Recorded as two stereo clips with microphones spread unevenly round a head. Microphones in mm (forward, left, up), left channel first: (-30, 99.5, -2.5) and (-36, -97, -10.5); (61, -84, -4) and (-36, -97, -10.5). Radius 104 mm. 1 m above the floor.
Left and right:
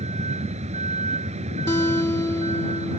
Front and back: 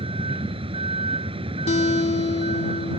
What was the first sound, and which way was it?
A vehicle, 150° right.